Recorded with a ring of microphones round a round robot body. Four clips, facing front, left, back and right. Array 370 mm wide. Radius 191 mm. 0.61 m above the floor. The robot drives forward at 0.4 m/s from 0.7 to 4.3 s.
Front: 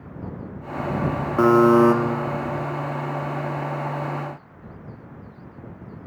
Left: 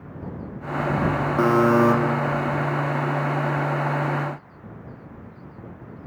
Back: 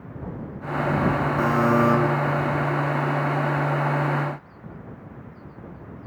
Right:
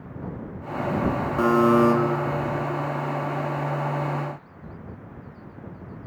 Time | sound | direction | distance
1.4 | a buzzer | 10° left | 1.9 m